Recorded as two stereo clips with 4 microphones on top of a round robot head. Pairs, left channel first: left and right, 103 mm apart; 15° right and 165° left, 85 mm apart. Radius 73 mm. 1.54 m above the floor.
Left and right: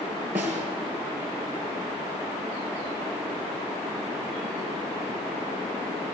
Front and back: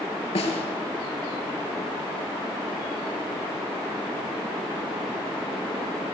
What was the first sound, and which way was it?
A snare drum, 15° right.